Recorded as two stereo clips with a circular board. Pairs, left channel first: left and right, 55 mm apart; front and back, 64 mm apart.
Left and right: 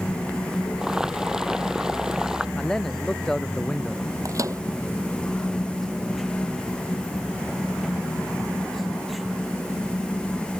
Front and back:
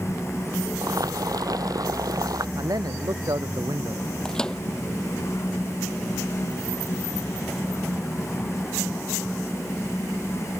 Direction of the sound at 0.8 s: 170° right.